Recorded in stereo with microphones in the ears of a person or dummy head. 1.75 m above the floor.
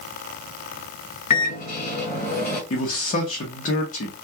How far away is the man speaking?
About 0.7 m.